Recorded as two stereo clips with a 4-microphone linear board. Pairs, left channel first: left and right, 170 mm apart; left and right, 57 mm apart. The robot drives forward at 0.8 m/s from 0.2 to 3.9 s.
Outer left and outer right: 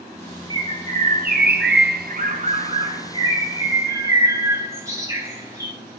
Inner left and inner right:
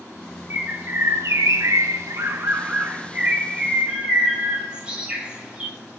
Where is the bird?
30° right (ahead or behind), 1.1 m; by 5.8 s 20° right (ahead or behind), 1.9 m.